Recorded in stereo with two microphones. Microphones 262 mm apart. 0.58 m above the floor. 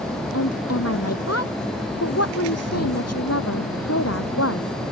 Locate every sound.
0.3 s a woman speaking: 70° left (ahead or behind)